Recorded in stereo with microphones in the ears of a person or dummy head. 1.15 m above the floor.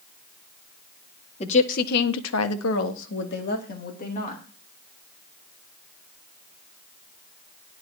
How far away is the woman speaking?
About 1.7 m.